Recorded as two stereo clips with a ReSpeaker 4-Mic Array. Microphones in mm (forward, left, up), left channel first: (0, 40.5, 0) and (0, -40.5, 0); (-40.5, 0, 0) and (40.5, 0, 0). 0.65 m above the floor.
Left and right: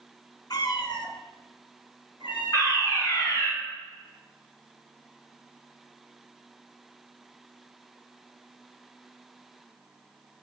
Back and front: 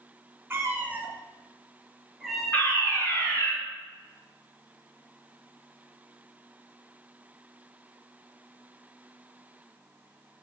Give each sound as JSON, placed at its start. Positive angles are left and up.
{"t": 0.5, "sound": "a cat meowing", "azimuth_deg": 60, "distance_m": 1.2}
{"t": 2.5, "sound": "a fire alarm", "azimuth_deg": 120, "distance_m": 2.5}